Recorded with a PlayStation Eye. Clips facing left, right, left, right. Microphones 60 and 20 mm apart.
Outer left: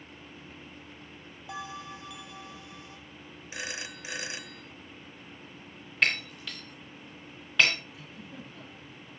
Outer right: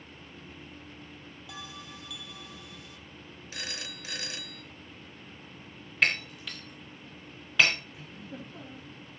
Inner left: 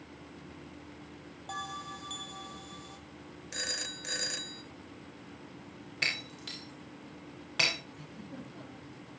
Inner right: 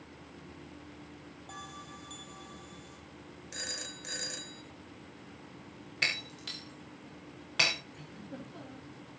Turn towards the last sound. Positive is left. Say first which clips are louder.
# outer right 2 dB, even
turn(degrees=-30)  # may be behind; listen again after turning